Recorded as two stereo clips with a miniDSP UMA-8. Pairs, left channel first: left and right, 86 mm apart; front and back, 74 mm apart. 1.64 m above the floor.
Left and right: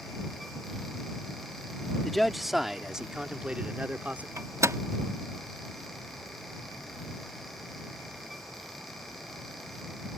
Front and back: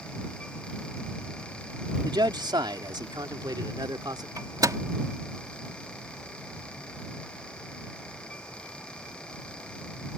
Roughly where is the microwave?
Behind right.